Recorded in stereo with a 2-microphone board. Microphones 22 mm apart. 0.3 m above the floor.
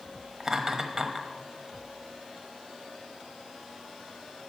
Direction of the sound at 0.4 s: 25° right (ahead or behind).